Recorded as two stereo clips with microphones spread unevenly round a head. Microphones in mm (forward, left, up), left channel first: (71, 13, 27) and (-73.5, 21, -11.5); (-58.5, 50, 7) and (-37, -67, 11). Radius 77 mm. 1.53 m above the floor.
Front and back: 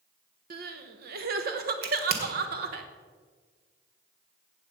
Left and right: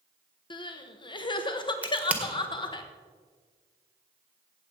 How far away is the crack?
About 1.9 m.